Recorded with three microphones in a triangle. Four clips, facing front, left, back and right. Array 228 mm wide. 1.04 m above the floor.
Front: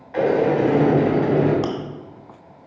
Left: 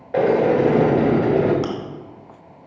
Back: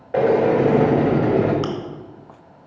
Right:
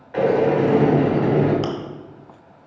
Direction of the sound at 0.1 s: 140° left.